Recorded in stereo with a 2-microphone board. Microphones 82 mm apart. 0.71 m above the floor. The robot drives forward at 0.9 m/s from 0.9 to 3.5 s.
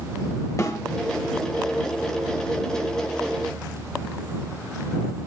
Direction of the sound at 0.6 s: 40° left (ahead or behind).